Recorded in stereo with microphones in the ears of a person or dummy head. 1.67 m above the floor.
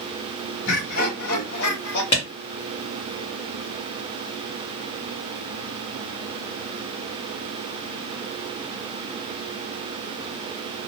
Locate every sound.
0.7 s laughter: 65° left (ahead or behind), 0.8 m; by 2.0 s 80° left, 1.2 m
2.1 s a clap: 25° left (ahead or behind), 1.2 m